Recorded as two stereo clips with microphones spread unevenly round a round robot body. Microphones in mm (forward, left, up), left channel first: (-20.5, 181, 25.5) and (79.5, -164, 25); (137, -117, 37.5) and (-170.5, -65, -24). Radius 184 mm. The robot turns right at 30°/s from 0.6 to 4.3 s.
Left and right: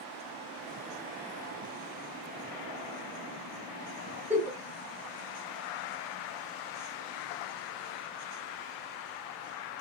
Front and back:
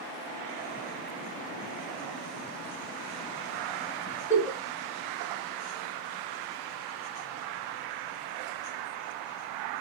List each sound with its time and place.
4.3 s a giggle: 150° right, 1.0 m